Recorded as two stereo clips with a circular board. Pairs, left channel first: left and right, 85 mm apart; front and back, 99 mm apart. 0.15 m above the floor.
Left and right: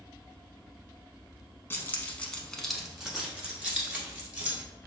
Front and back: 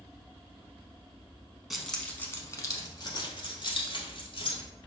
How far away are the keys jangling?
About 0.8 m.